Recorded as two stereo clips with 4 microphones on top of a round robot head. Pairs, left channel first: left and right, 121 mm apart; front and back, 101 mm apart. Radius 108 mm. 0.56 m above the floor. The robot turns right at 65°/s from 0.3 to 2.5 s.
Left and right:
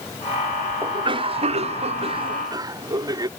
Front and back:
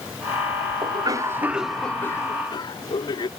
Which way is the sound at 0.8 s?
150° right.